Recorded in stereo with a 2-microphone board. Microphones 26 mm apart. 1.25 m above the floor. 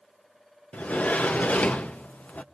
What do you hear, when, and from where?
0.7 s a sliding door: 70° left (ahead or behind), 0.7 m